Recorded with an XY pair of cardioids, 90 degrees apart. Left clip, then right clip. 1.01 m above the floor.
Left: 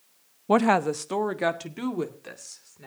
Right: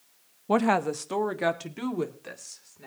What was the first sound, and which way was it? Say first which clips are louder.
A woman speaking: left 3 dB; 30° left.